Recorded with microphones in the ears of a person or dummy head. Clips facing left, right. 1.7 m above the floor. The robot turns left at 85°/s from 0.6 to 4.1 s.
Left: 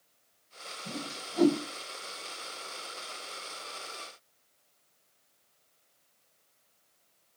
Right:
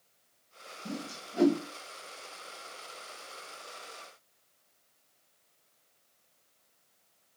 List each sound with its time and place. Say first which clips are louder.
0.8 s a whoosh: right 1 dB; 75° right (ahead or behind), 2.5 m; by 1.6 s 20° right (ahead or behind), 2.5 m